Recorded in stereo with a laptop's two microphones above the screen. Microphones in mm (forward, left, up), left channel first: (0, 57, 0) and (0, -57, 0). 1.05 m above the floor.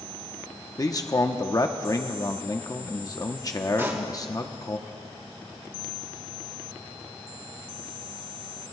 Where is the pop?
25° right (ahead or behind), 2.5 m.